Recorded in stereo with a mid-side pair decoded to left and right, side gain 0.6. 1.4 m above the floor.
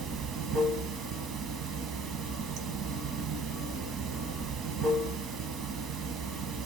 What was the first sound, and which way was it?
Running water, 60° right.